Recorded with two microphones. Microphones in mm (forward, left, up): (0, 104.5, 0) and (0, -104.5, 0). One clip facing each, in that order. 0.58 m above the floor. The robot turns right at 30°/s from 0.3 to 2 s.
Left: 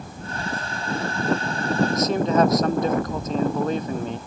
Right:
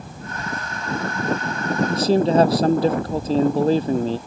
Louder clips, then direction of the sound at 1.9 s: Right 8 dB; 30° right (ahead or behind).